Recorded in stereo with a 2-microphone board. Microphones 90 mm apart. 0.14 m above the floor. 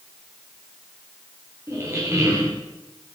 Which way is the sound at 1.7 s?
35° right (ahead or behind).